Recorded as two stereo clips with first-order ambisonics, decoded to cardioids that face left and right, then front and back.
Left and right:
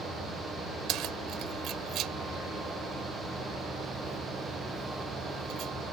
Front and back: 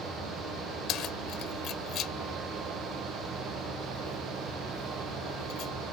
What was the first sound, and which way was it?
Keys jangling, 45° right.